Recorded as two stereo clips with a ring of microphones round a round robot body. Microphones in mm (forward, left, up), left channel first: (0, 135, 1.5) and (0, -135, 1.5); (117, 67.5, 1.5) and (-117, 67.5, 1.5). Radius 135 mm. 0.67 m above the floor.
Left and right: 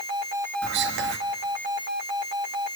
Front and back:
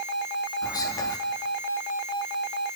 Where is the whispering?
70° right, 0.7 m.